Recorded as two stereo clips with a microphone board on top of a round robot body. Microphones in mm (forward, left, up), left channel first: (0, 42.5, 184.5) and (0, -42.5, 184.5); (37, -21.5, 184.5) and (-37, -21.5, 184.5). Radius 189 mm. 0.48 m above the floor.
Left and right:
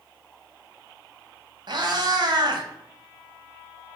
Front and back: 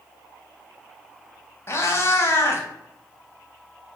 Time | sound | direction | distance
1.7 | a cat meowing | 55° right | 0.6 m